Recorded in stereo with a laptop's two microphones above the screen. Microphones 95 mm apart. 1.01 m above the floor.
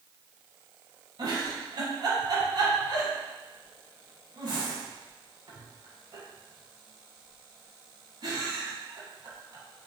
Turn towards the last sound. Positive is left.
turn(degrees=-55)  # may be behind; listen again after turning